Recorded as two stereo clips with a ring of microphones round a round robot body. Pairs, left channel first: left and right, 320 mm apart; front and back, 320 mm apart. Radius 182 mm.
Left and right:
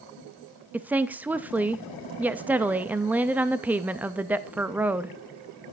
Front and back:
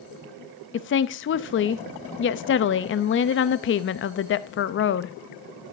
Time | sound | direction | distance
0.7 | a woman speaking | 10° right | 0.5 m